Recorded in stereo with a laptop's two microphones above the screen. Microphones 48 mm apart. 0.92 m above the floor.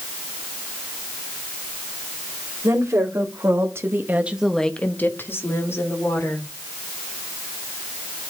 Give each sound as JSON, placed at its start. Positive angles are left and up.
{"t": 2.6, "sound": "a woman speaking", "side_deg": -80, "distance_m": 2.5}